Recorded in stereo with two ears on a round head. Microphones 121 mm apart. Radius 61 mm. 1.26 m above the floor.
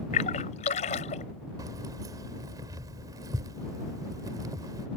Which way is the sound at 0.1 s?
55° left (ahead or behind).